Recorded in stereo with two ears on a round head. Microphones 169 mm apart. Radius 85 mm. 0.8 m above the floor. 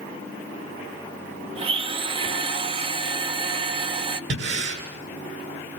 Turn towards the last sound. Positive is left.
turn(degrees=-70)  # may be behind; listen again after turning